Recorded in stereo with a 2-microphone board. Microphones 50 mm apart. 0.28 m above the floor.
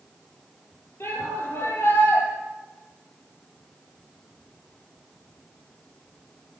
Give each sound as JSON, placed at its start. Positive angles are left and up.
{"t": 1.0, "sound": "a shout", "side_deg": 50, "distance_m": 7.5}